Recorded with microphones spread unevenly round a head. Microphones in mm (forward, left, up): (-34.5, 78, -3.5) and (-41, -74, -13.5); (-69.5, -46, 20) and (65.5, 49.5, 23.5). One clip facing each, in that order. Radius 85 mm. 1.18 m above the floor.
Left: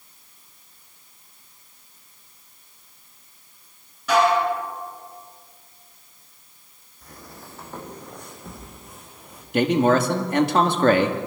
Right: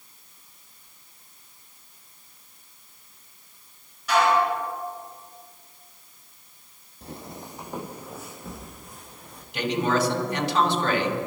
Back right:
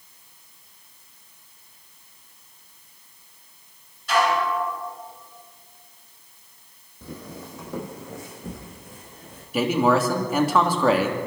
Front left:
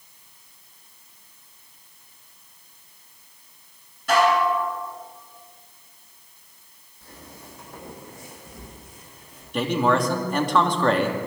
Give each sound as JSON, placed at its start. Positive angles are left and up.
{"t": 4.1, "sound": "dishes clattering", "azimuth_deg": 80, "distance_m": 9.5}
{"t": 7.0, "sound": "footsteps", "azimuth_deg": -150, "distance_m": 2.5}
{"t": 9.5, "sound": "a man speaking", "azimuth_deg": 130, "distance_m": 2.0}